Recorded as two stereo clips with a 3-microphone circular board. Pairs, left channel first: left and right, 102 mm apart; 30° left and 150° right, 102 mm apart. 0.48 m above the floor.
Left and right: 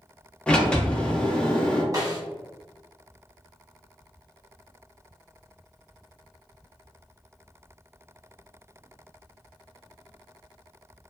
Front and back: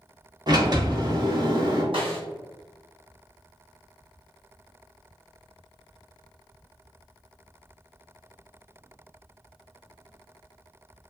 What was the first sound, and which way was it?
A sliding door, 170° left.